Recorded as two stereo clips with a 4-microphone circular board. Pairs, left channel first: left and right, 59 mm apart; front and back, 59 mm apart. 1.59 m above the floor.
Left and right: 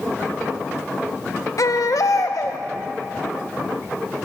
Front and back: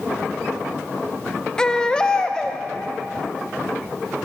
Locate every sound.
1.6 s a baby crying: 75° left, 1.2 m